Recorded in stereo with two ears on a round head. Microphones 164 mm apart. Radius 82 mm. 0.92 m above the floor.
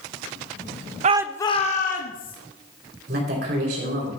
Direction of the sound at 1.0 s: 40° right (ahead or behind).